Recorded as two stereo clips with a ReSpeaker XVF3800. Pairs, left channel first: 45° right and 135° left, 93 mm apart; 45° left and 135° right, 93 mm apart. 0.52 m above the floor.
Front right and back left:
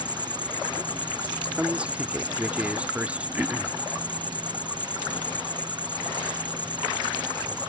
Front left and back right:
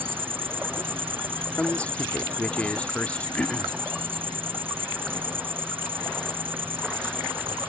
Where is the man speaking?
85° left.